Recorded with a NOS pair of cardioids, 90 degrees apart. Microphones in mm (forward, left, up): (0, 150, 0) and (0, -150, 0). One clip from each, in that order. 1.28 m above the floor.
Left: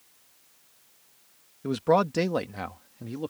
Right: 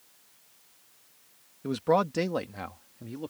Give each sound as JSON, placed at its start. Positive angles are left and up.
{"t": 1.6, "sound": "a man speaking", "azimuth_deg": 15}